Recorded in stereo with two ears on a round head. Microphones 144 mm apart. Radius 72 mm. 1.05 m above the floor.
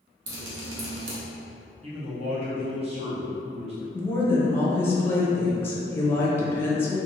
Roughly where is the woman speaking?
Centre.